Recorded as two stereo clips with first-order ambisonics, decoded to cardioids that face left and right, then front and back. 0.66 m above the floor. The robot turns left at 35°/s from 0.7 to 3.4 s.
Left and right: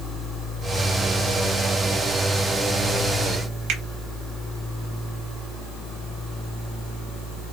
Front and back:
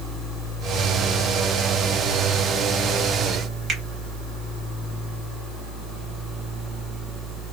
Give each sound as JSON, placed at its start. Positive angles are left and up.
{"t": 3.7, "sound": "a finger snap", "azimuth_deg": -115, "distance_m": 1.3}